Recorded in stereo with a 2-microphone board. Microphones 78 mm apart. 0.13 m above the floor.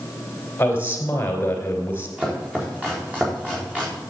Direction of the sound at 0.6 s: 30° left (ahead or behind).